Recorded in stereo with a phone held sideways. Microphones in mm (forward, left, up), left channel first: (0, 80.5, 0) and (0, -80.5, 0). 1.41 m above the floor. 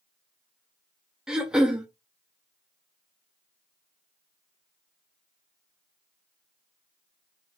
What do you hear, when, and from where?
1.3 s throat clearing: 5° right (ahead or behind), 0.5 m